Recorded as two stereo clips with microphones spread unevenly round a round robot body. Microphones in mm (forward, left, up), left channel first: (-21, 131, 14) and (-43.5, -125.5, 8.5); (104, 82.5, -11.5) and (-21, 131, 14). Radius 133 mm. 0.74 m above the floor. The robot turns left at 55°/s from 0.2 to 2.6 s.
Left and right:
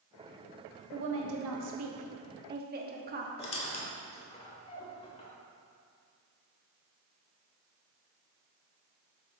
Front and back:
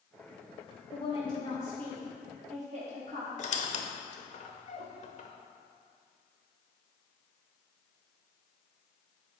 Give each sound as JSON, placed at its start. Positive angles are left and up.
{"t": 0.9, "sound": "a woman speaking", "azimuth_deg": -50, "distance_m": 1.2}
{"t": 3.4, "sound": "a squeak", "azimuth_deg": 15, "distance_m": 1.0}